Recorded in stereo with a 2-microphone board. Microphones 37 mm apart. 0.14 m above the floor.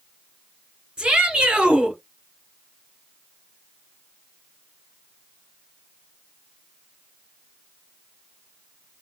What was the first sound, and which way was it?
A shout, 30° right (ahead or behind).